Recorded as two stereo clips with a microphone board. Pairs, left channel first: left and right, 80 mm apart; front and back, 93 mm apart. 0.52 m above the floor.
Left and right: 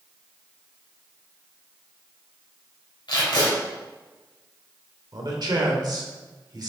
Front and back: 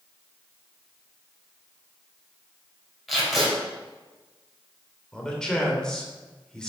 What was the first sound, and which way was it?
Tape being pulled, 90° left.